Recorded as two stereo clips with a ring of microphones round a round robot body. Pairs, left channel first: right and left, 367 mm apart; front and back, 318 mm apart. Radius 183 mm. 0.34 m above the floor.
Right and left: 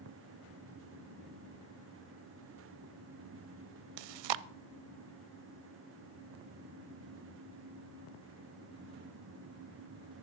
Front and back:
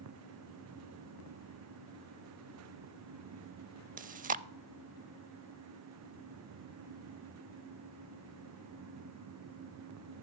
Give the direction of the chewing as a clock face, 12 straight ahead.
8 o'clock.